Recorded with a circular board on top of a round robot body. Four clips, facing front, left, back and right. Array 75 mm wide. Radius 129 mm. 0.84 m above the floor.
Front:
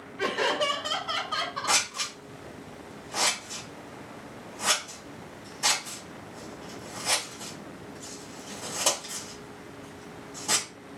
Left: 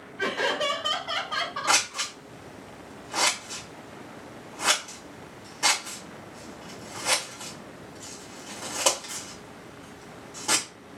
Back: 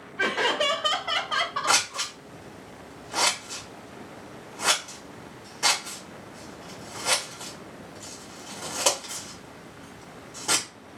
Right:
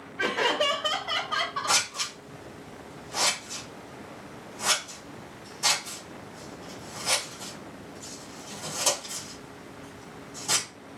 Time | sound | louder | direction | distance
0.2 | laughter | right 1 dB, back 2 dB | 160° right | 2 m
1.7 | scissors | left 3 dB, back 3 dB | 135° left | 2.5 m